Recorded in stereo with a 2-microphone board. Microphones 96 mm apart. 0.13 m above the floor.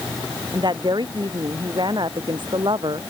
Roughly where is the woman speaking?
Right.